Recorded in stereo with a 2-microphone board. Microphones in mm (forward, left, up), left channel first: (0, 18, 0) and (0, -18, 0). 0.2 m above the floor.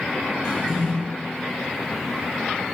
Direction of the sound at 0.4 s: 15° left (ahead or behind).